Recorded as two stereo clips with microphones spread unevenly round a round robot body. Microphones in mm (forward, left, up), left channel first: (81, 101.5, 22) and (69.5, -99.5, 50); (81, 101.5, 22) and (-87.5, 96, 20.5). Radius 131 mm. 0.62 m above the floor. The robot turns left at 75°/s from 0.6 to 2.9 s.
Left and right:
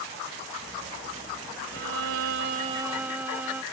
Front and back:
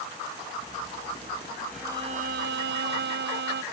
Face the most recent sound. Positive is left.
turn(degrees=-175)